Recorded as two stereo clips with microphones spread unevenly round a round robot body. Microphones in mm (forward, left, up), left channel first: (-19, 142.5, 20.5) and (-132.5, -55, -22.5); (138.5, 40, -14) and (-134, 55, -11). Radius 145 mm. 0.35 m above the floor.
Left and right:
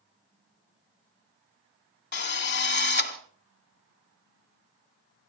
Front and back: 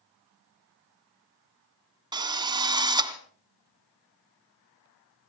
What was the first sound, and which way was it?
A drill, 100° left.